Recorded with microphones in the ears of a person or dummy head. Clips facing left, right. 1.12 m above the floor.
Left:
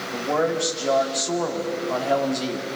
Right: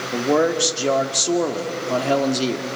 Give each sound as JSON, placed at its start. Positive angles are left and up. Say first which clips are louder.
{"t": 0.1, "sound": "a man speaking", "louder": "right 5 dB", "side_deg": -45, "distance_m": 2.0}